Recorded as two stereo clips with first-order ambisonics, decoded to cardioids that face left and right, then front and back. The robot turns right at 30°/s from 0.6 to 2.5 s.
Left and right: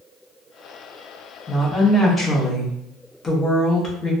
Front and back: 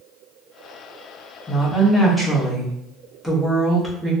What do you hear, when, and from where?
1.5 s a woman speaking: 75° left, 0.7 m; by 4.1 s 105° left, 0.7 m